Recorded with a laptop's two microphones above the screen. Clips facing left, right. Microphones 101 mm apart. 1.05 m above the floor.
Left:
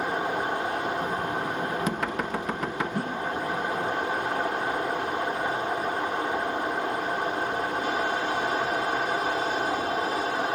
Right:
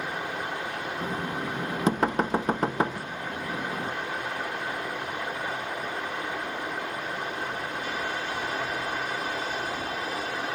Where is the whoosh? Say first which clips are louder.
Left 6 dB; 55° left (ahead or behind), 0.7 m.